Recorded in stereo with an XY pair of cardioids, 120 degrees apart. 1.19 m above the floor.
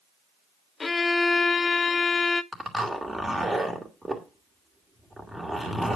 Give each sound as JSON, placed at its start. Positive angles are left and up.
{"t": 0.8, "sound": "a violin", "azimuth_deg": 25, "distance_m": 0.7}
{"t": 2.5, "sound": "a zipper", "azimuth_deg": -10, "distance_m": 2.5}